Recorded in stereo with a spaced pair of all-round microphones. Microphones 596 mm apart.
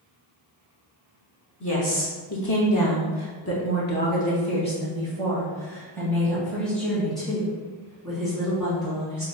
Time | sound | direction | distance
1.6 | a woman speaking | 25° left (ahead or behind) | 0.9 m